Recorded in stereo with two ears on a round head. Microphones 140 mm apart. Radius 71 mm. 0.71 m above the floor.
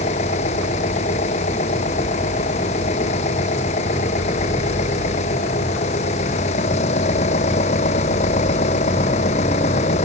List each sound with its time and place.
0.0 s an engine running: 45° left (ahead or behind)